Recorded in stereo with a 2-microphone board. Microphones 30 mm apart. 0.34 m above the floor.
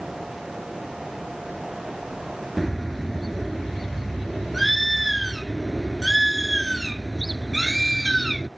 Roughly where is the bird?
Centre.